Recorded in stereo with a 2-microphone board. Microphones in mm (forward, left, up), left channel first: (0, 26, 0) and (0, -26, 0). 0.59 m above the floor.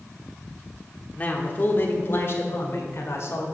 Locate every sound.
1.1 s a man speaking: 30° left (ahead or behind), 1.4 m; by 3.5 s 55° left (ahead or behind), 2 m